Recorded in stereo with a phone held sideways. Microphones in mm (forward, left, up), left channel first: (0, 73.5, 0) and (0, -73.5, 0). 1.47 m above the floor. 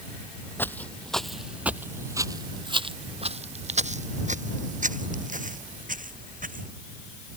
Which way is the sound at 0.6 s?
15° left (ahead or behind).